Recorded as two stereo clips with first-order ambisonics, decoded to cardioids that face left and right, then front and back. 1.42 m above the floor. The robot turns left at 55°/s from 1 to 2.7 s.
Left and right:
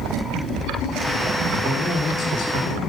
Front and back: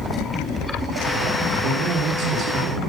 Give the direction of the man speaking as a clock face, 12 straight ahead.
6 o'clock.